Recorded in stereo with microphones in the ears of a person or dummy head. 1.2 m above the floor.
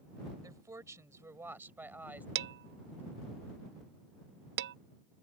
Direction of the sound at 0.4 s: 20° right (ahead or behind).